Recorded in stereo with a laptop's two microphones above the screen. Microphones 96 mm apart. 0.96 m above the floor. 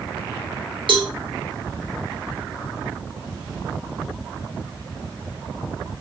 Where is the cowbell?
60° right (ahead or behind), 0.8 m.